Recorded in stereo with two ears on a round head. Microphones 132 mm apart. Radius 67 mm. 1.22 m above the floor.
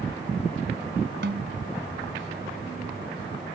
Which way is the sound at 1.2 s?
75° right (ahead or behind).